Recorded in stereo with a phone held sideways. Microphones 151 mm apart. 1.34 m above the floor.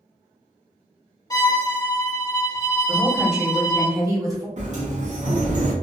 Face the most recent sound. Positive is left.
turn(degrees=-50)  # may be behind; listen again after turning